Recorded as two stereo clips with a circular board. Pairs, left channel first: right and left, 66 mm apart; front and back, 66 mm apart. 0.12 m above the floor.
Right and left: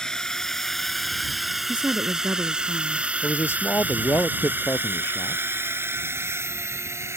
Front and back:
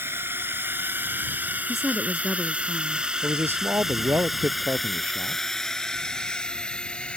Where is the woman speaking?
100° left.